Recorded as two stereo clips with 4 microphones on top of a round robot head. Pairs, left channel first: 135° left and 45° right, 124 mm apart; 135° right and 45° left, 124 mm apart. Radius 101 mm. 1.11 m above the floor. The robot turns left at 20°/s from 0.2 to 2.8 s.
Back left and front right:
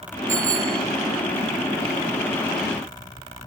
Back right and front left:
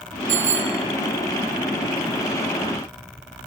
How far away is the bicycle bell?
About 2 m.